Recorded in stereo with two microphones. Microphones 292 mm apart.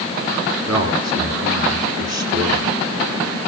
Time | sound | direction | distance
0.7 | a man speaking | 65° right (ahead or behind) | 4 m